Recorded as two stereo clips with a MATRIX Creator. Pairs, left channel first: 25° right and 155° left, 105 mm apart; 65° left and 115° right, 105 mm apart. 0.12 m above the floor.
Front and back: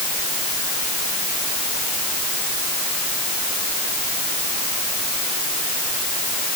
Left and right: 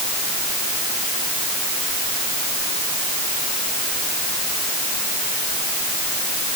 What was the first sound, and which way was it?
Only background noise.